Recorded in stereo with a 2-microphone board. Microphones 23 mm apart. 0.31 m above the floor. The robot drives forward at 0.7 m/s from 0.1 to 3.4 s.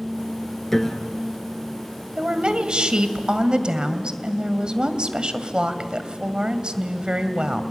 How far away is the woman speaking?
About 1.7 m.